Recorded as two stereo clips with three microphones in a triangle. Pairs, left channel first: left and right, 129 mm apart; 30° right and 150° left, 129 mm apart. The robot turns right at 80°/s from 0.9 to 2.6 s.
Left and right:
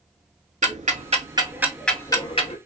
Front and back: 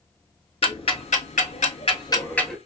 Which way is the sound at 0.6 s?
70° right.